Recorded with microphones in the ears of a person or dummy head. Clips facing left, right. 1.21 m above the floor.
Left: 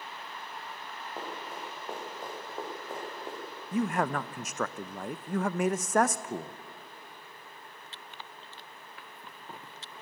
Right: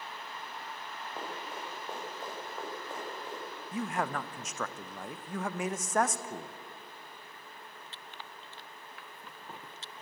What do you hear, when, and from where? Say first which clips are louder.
1.2 s running footsteps: left 1 dB; centre (ahead or behind), 8 m; by 3.4 s 15° left (ahead or behind), 7 m
3.7 s a man speaking: left 5 dB; 45° left (ahead or behind), 0.7 m